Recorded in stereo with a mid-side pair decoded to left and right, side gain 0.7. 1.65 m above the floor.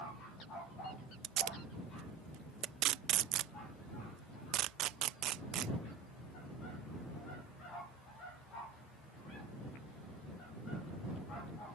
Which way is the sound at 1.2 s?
55° right.